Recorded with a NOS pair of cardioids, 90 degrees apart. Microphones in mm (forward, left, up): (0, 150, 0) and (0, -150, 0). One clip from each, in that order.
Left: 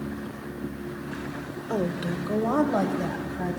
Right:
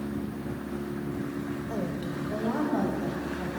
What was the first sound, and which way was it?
A woman speaking, 40° left.